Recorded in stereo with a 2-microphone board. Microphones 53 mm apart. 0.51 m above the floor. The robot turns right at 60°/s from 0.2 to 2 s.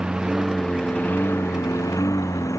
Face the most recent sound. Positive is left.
turn(degrees=80)